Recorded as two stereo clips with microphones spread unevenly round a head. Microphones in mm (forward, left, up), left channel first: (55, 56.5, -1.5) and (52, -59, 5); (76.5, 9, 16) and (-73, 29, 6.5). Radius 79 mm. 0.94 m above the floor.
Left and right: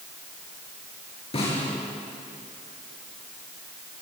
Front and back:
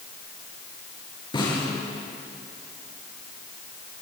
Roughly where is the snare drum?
Ahead left.